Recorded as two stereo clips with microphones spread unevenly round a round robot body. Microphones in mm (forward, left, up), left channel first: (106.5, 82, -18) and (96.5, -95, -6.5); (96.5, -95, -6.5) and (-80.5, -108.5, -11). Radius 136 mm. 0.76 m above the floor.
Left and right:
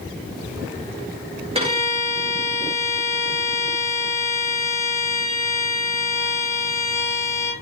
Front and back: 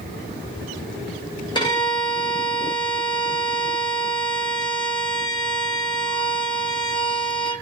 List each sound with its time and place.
1.6 s a violin: 50° right, 1.3 m